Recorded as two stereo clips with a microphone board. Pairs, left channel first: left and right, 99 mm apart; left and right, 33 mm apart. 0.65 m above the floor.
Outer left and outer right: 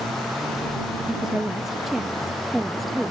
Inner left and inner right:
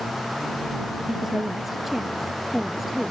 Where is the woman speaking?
5° right (ahead or behind); by 3.1 s centre (ahead or behind).